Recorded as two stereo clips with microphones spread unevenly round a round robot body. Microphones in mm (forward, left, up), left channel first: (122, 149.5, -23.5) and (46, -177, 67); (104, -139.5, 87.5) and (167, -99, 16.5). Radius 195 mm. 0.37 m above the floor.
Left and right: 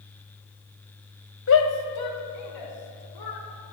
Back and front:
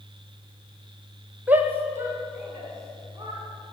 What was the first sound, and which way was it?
A shout, 40° left.